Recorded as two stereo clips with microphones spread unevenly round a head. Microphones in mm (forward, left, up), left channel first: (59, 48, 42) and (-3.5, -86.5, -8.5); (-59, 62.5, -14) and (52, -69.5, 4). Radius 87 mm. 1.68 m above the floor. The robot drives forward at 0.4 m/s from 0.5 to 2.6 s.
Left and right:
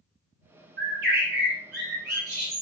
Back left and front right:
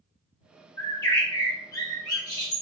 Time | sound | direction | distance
0.8 | a bird | 150° right | 1.2 m